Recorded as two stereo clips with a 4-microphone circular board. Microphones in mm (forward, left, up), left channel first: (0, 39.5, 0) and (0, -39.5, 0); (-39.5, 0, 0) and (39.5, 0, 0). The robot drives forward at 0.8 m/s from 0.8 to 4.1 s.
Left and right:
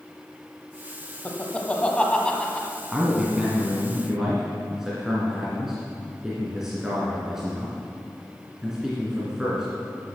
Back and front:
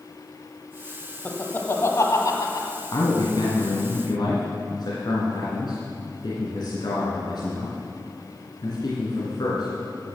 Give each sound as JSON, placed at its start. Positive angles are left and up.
{"t": 1.2, "sound": "laughter", "azimuth_deg": 130, "distance_m": 1.1}
{"t": 2.9, "sound": "a man speaking", "azimuth_deg": -170, "distance_m": 1.5}